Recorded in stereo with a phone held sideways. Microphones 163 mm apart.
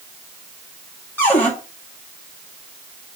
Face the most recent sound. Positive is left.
turn(degrees=10)  # may be behind; listen again after turning